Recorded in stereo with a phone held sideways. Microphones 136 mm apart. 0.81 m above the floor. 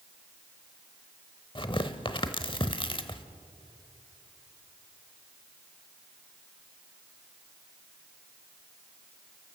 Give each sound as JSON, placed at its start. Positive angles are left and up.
{"t": 1.6, "sound": "tearing paper", "side_deg": 40, "distance_m": 0.9}